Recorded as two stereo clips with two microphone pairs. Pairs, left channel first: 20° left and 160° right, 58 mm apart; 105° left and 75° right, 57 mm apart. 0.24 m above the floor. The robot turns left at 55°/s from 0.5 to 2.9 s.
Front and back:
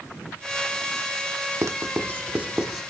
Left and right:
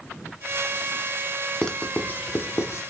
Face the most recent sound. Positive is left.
turn(degrees=110)